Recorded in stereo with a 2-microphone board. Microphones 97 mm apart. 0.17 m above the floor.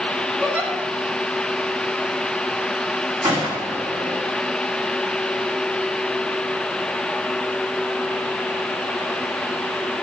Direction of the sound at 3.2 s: 40° right (ahead or behind).